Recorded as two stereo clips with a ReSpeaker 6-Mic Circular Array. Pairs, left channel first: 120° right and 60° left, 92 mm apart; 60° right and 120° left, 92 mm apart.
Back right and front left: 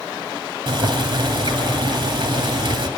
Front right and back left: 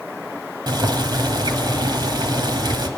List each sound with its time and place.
0.7 s boiling: 85° left, 1.7 m